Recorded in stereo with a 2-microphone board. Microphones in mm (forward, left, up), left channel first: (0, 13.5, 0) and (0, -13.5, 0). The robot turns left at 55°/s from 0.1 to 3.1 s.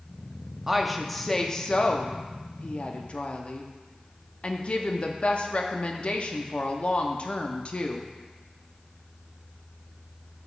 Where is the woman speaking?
165° right, 0.7 m; by 8.1 s 60° left, 0.7 m.